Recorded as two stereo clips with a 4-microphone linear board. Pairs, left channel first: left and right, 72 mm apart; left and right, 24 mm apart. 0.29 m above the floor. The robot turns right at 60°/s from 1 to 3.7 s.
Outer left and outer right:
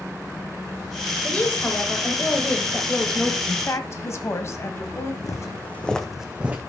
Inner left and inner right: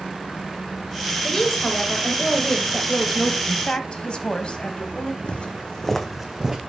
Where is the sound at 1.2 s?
15° left (ahead or behind), 1.4 m; by 3.4 s 5° left (ahead or behind), 1.4 m.